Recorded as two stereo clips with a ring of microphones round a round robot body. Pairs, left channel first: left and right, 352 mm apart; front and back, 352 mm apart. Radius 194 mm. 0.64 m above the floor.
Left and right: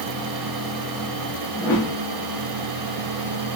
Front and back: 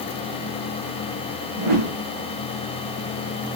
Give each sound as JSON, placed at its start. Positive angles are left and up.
{"t": 1.6, "sound": "a whoosh", "azimuth_deg": 175, "distance_m": 9.5}